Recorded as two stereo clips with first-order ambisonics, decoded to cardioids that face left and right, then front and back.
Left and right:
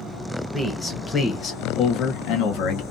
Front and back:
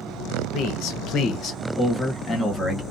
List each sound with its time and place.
0.5 s a man speaking: straight ahead, 0.9 m; by 2.8 s 80° left, 1.2 m